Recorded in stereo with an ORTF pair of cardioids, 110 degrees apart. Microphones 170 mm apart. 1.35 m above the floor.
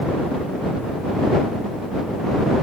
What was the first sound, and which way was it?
Only background noise.